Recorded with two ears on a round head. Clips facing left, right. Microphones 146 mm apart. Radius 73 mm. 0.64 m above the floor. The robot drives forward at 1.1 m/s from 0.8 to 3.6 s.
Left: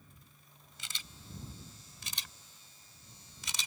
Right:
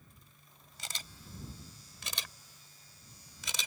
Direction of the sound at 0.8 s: 35° right (ahead or behind).